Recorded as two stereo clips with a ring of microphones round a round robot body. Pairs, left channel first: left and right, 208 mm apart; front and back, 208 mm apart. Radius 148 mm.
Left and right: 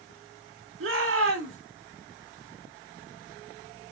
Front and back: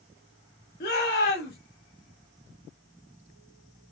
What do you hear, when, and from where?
0.8 s a shout: 55° right, 2 m